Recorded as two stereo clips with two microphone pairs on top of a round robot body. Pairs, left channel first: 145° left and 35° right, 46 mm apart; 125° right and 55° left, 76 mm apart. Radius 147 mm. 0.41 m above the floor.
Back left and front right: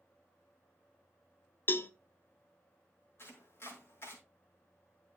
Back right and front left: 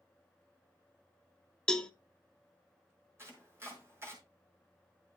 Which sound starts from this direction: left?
Chopping, at 3.2 s.